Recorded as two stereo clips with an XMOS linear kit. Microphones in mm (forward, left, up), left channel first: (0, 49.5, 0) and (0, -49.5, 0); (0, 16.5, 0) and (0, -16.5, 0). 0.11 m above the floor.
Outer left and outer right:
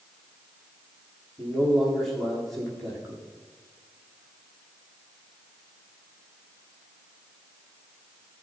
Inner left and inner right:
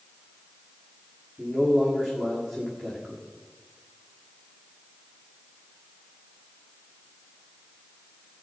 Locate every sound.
1.4 s a man speaking: centre (ahead or behind), 6.5 m